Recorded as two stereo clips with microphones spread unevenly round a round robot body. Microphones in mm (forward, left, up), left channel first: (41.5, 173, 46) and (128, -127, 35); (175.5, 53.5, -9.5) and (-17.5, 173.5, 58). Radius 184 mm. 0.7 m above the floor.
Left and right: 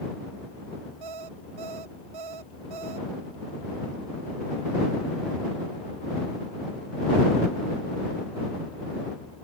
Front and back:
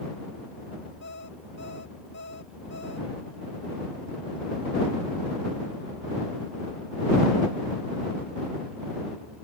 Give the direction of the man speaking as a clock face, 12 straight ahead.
No man speaking in this recording.